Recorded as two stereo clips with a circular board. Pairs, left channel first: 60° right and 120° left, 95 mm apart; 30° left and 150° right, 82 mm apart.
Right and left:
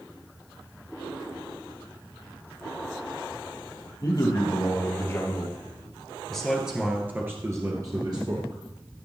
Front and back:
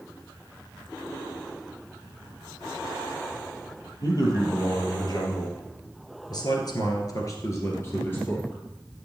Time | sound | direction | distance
4.0 | a man speaking | 15° right | 4 m